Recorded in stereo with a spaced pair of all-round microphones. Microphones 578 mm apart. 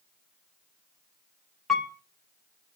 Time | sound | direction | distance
1.7 | a piano | centre (ahead or behind) | 0.8 m